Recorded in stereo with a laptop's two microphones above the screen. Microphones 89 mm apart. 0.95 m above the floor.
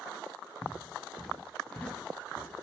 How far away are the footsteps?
About 1.1 m.